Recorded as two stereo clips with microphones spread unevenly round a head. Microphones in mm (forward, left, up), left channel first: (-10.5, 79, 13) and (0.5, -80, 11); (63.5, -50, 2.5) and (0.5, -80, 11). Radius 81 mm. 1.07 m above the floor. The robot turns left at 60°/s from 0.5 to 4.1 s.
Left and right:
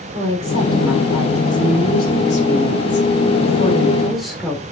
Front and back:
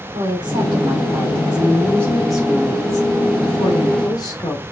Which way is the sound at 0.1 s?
140° right.